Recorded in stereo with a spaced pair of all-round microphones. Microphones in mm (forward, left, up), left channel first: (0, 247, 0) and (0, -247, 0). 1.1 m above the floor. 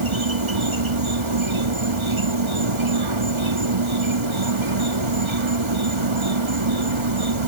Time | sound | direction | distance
0.0 | an insect | 65° right (ahead or behind) | ?